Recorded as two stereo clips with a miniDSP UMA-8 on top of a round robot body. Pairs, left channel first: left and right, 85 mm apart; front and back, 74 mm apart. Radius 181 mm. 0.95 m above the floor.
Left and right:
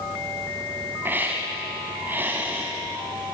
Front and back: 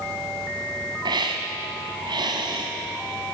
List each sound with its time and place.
1.1 s a hiss: 160° right, 1.4 m